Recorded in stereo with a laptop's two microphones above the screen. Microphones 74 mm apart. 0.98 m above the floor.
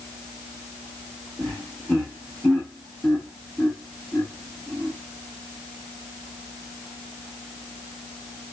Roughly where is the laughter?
Centre.